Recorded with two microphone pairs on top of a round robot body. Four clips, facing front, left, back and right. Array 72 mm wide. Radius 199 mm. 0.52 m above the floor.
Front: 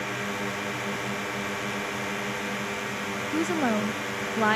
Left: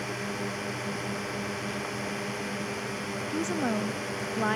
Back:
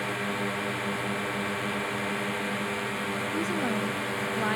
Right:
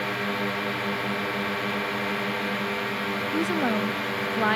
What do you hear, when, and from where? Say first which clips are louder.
0.0 s a drone: right 6 dB, back 1 dB; 95° right
3.3 s a woman speaking: right 3 dB, front 6 dB; 20° right